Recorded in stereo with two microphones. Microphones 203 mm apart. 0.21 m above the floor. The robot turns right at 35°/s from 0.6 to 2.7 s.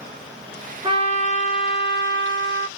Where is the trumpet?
155° right, 0.6 m; by 2.7 s 90° right, 0.6 m.